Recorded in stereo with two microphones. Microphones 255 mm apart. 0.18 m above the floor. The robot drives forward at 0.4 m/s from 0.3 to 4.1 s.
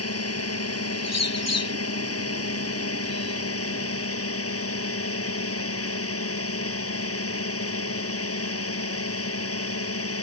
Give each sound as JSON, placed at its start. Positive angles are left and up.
{"t": 0.0, "sound": "a drone", "side_deg": 70}
{"t": 1.0, "sound": "a bird", "side_deg": 85}